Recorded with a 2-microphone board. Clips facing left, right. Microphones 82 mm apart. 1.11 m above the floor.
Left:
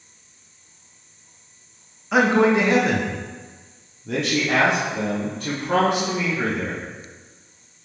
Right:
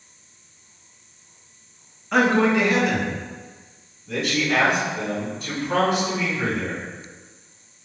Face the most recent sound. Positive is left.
turn(degrees=85)